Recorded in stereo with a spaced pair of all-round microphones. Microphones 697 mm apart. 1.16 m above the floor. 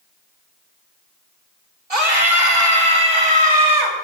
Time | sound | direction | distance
1.9 | a scream | 55° right (ahead or behind) | 3.5 m